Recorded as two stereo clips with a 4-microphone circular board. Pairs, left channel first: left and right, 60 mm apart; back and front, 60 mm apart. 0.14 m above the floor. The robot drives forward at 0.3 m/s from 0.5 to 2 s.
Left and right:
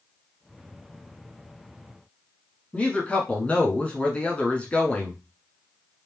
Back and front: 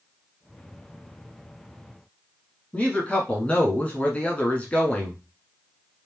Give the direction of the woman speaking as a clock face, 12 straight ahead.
7 o'clock.